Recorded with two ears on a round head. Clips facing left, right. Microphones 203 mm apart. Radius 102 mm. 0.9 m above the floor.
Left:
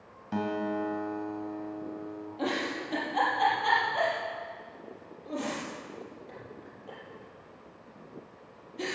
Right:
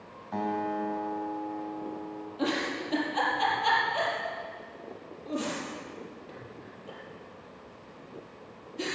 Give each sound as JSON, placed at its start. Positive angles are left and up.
{"t": 0.3, "sound": "a guitar", "side_deg": 40, "distance_m": 2.0}
{"t": 2.4, "sound": "a giggle", "side_deg": -10, "distance_m": 4.5}